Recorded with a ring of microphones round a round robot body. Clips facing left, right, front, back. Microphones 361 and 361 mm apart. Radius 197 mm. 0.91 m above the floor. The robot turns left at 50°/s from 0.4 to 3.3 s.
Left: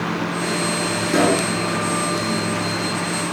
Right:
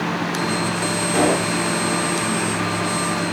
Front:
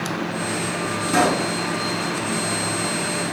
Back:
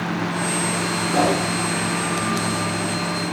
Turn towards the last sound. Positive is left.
turn(degrees=-75)